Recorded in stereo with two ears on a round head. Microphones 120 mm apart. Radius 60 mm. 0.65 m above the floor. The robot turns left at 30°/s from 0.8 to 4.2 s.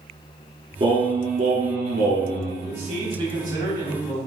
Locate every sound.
0.8 s singing: 35° right, 2.5 m; by 2.5 s 85° right, 2.5 m
2.6 s a man speaking: 120° right, 3.5 m; by 4.2 s 170° right, 3.5 m